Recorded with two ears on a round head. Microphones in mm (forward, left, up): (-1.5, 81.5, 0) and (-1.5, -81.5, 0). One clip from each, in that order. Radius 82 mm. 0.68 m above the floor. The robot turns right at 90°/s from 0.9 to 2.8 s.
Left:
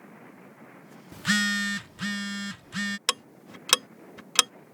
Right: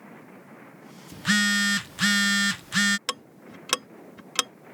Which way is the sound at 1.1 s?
160° left.